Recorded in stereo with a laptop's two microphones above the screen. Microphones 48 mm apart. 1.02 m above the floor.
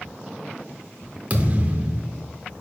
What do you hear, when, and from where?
1.3 s a thud: 30° right (ahead or behind), 0.7 m